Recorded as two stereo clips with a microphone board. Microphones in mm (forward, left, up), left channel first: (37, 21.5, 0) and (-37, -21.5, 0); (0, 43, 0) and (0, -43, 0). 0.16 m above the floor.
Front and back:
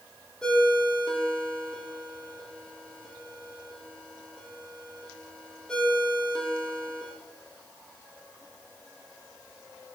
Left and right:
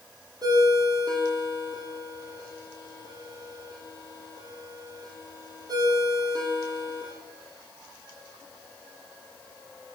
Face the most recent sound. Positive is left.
turn(degrees=-50)